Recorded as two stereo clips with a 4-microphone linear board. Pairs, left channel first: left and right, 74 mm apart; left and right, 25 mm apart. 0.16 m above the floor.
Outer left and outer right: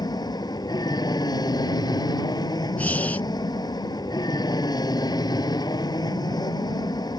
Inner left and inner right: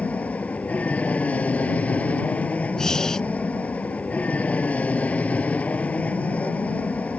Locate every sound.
0.0 s an aircraft: 65° left (ahead or behind)
2.8 s breathing: 20° left (ahead or behind)